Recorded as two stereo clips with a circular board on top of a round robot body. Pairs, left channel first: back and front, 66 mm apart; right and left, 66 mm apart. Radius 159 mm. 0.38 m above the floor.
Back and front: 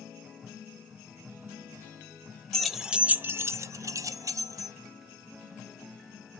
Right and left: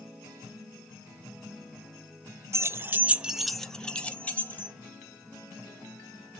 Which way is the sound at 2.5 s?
100° left.